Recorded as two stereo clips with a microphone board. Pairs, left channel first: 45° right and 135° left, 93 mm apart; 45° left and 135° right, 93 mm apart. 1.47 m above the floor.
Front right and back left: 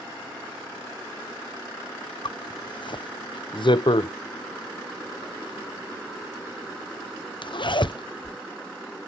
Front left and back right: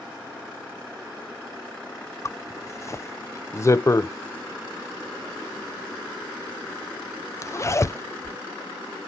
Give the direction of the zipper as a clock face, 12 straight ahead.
12 o'clock.